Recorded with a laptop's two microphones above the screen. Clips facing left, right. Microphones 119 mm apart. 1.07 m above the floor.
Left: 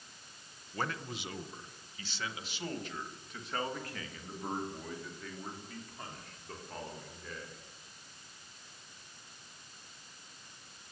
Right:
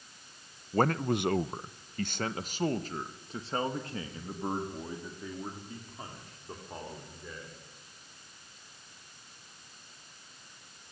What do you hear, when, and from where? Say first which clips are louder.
0.7 s a man speaking: right 11 dB; 45° right (ahead or behind), 0.8 m; by 7.6 s 10° right (ahead or behind), 3.5 m